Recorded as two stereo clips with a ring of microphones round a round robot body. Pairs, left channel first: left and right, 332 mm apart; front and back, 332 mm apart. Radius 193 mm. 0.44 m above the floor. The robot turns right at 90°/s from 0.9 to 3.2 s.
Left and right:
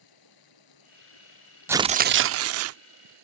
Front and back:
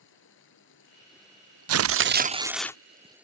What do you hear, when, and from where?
0.0 s running water: 60° left; by 3.2 s 95° right
1.7 s tearing paper: 170° right; by 2.8 s 75° right